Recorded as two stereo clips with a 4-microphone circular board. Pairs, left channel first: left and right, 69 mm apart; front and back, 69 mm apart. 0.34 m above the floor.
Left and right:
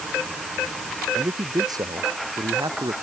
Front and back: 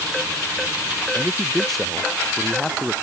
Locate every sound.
1.1 s a man speaking: 85° right; by 2.9 s 90° right